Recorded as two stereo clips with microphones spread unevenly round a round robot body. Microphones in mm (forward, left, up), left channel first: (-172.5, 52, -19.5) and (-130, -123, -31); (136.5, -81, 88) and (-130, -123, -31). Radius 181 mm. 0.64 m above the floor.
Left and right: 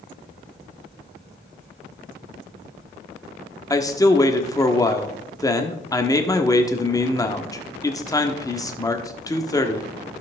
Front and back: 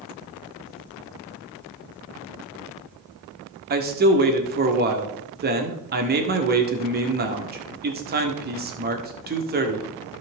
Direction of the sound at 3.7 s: 175° left.